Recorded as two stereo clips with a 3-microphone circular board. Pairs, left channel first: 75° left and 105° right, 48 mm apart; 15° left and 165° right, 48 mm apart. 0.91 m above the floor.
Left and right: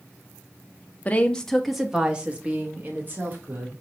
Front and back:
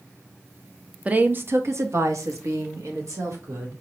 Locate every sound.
1.1 s a woman speaking: 130° left, 0.7 m; by 3.8 s 150° right, 1.9 m